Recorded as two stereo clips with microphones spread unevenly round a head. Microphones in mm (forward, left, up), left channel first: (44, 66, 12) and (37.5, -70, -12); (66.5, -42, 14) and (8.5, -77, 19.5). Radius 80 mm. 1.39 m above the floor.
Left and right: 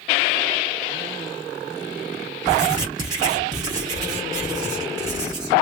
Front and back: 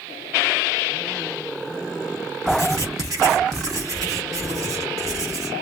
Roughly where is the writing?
Behind.